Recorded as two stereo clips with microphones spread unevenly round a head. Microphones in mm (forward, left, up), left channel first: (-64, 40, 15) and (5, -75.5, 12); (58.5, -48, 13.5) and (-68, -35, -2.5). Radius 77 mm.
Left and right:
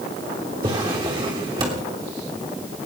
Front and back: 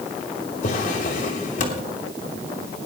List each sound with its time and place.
0.6 s a drawer: straight ahead, 2.5 m